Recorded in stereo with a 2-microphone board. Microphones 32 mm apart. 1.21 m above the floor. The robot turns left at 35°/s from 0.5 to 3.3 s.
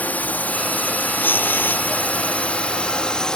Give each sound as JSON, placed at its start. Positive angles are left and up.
{"t": 0.0, "sound": "a drone", "side_deg": 60}
{"t": 1.2, "sound": "tearing paper", "side_deg": 80}